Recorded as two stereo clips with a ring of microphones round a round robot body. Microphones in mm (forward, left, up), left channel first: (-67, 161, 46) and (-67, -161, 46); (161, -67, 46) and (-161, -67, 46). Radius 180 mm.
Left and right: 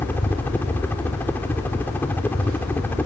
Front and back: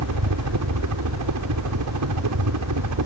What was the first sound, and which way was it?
A helicopter, 175° left.